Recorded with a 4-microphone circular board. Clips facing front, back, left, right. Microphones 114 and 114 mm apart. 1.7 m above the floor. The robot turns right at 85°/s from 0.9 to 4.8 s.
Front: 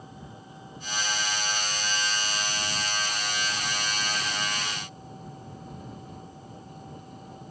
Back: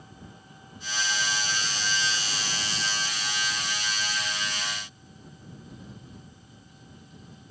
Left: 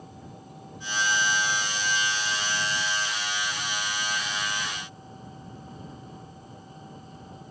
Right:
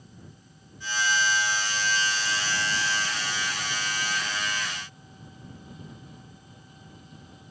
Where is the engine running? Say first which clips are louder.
Front 4 dB, left 7 dB; 65° left; by 7.5 s 35° left.